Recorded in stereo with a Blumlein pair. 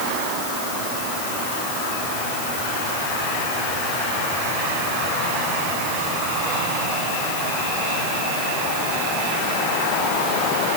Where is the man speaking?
No man speaking in this recording.